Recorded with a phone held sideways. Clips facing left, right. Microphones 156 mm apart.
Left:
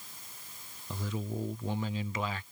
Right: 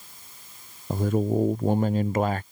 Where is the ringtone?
I don't hear a ringtone.